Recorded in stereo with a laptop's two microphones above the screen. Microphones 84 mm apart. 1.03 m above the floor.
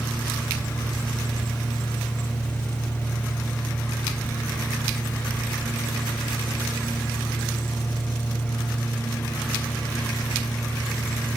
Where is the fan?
20° left (ahead or behind), 1.2 m.